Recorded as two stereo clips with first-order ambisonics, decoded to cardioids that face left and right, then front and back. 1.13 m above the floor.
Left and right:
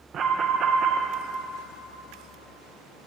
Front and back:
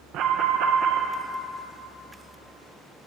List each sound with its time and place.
0.1 s an alarm: 145° right, 0.8 m